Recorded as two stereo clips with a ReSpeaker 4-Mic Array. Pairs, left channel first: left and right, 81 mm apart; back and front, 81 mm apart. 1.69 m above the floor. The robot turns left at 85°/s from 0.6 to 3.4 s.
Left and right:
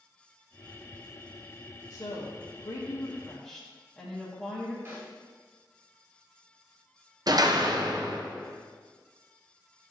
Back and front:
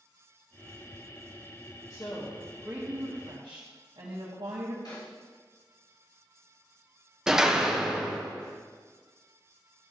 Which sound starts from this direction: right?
A door slam, at 7.3 s.